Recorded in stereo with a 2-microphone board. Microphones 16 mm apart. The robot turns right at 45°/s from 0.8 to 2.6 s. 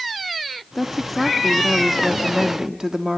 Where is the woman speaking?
150° left, 1.1 m; by 3.2 s 130° right, 1.1 m.